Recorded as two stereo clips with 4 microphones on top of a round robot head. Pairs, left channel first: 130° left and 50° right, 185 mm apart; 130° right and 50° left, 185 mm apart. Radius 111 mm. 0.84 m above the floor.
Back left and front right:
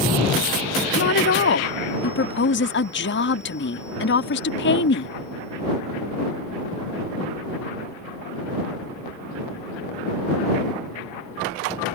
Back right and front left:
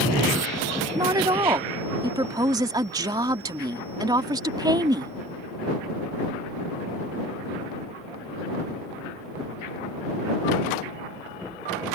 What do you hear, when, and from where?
0.9 s a woman speaking: 120° left